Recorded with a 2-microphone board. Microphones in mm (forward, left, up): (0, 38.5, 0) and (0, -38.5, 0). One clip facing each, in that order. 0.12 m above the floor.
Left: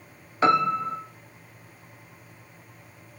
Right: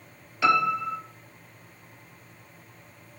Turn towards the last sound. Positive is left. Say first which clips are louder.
# left 1 dB
turn(degrees=40)  # may be behind; listen again after turning